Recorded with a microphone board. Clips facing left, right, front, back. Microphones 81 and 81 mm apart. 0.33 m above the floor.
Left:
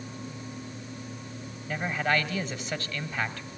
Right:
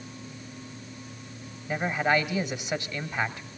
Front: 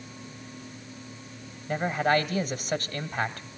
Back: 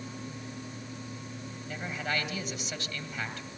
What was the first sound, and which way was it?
A man speaking, 20° right.